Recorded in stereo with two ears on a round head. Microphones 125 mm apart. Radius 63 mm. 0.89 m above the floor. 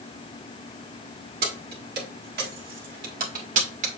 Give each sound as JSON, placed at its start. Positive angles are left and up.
{"t": 1.4, "sound": "keys jangling", "side_deg": -75, "distance_m": 2.0}